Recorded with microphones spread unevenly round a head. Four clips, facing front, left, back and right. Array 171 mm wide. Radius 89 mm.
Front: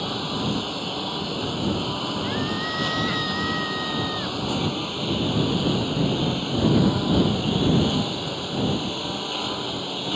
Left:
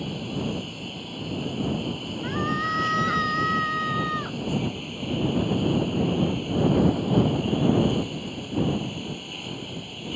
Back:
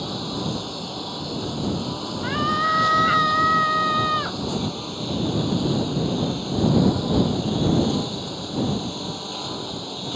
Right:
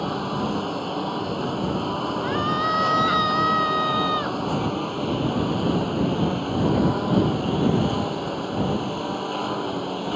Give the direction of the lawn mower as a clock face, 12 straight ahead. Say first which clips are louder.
Right 5 dB, front 1 dB; 3 o'clock.